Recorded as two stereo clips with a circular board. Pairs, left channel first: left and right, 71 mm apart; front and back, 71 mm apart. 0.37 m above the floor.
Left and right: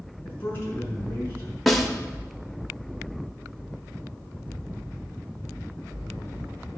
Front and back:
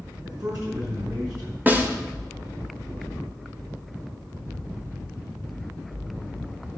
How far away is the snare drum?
About 1.2 m.